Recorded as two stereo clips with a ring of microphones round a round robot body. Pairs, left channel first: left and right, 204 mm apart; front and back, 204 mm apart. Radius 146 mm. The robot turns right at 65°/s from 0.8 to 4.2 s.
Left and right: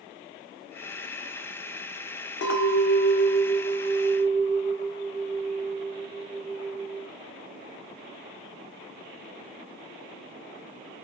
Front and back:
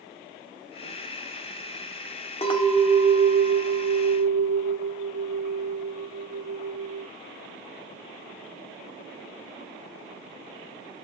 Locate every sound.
2.4 s a clink: 60° left, 1.3 m; by 7.1 s straight behind, 1.3 m